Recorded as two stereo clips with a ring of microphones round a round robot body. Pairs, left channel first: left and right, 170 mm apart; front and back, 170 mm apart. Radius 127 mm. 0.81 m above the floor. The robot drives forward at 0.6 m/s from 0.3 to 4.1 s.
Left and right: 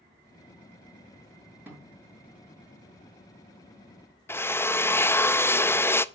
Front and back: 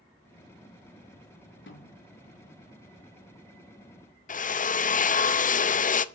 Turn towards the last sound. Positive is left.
turn(degrees=15)